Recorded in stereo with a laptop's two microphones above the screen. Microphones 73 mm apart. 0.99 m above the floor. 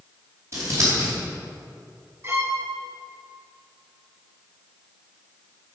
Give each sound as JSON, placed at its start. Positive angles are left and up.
{"t": 0.5, "sound": "scissors", "side_deg": -40, "distance_m": 4.5}
{"t": 2.2, "sound": "a violin", "side_deg": -35, "distance_m": 2.5}